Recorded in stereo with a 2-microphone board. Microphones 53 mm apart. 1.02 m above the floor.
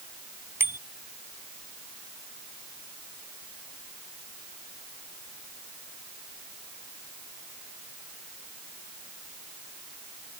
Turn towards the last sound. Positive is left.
turn(degrees=-50)  # may be behind; listen again after turning